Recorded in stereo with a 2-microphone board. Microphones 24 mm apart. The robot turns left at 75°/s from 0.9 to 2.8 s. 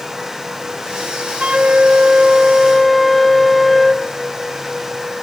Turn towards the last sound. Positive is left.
turn(degrees=180)